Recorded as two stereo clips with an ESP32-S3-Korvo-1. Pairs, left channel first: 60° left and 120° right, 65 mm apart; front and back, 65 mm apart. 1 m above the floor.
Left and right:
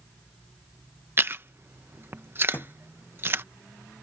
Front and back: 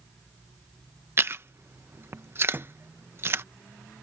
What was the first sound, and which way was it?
Chewing, 155° right.